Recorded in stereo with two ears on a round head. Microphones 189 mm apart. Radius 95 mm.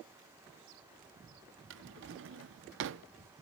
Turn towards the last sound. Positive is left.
turn(degrees=-60)  # may be behind; listen again after turning